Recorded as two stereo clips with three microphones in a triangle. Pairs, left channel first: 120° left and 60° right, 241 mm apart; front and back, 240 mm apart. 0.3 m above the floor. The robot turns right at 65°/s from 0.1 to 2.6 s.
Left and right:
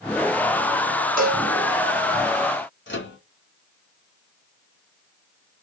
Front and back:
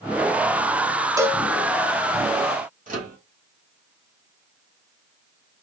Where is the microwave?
135° left, 1.4 m.